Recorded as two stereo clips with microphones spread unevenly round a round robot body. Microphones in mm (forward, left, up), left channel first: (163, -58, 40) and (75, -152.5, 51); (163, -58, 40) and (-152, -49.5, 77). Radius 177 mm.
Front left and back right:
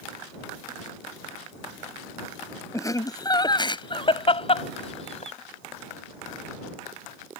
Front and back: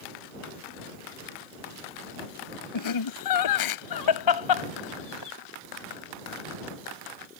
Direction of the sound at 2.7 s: 20° right.